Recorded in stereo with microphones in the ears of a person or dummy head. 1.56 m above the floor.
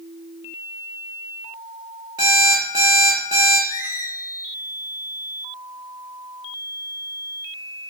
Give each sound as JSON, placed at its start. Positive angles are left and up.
{"t": 2.2, "sound": "an alarm clock", "side_deg": -15, "distance_m": 0.9}
{"t": 3.7, "sound": "a squeak", "side_deg": 25, "distance_m": 0.5}